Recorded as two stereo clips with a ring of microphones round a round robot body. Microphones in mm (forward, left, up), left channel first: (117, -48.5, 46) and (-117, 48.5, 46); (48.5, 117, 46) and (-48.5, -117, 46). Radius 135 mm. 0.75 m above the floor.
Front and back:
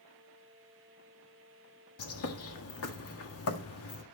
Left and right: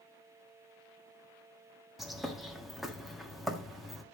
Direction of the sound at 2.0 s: 25° right.